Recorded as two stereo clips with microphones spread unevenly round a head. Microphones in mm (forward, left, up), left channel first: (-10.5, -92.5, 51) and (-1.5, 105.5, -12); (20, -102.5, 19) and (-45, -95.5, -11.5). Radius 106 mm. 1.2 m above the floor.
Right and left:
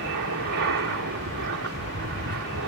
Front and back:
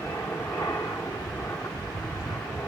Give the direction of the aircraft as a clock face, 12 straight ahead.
10 o'clock.